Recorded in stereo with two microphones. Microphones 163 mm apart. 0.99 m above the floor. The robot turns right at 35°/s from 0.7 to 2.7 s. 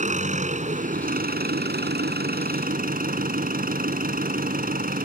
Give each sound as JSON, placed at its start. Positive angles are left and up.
{"t": 0.0, "sound": "an engine running", "azimuth_deg": -130}